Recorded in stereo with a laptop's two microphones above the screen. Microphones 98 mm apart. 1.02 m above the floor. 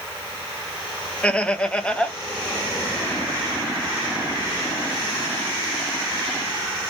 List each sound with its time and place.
1.2 s laughter: 10° left (ahead or behind), 0.6 m